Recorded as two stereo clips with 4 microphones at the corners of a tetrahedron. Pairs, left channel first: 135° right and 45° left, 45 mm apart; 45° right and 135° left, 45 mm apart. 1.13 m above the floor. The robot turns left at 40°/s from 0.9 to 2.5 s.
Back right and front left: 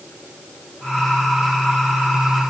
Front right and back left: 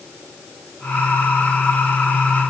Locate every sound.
Only background noise.